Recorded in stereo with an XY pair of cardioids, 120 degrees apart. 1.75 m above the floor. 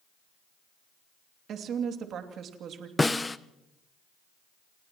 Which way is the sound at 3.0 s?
15° left.